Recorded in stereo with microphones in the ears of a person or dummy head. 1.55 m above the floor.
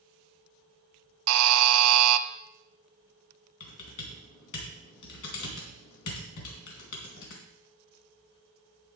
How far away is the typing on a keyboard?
About 3.5 m.